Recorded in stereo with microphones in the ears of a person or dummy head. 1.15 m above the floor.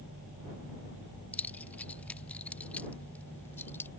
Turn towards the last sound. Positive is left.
turn(degrees=10)  # may be behind; listen again after turning